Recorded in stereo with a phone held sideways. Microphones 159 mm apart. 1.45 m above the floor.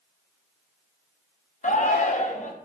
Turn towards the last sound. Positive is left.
turn(degrees=50)  # may be behind; listen again after turning